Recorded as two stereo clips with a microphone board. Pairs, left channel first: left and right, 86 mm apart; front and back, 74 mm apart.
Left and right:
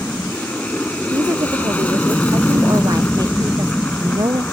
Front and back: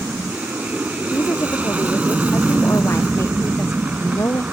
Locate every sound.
0.0 s an aircraft: 140° left
1.1 s a woman speaking: 50° right